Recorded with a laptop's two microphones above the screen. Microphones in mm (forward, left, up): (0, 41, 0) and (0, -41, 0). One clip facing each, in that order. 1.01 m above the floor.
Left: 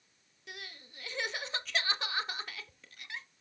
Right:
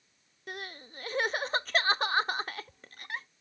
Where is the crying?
45° right (ahead or behind), 0.7 m.